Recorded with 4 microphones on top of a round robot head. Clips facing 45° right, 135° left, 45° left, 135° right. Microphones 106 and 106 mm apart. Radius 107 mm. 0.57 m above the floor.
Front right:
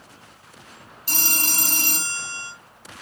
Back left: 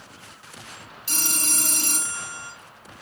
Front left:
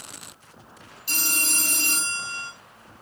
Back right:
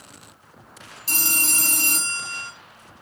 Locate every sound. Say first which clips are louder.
1.1 s a phone ringing: front right 2 dB, back right 2 dB; 90° right, 2.5 m